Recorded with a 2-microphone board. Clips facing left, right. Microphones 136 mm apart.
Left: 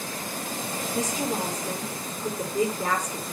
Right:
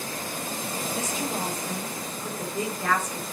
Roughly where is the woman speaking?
Left.